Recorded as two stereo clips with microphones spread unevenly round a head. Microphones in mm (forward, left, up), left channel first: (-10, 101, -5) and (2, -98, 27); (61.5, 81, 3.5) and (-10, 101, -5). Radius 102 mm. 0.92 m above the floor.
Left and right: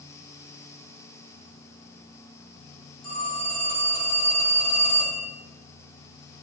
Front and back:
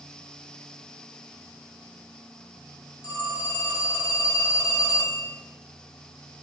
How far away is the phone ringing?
About 1.1 m.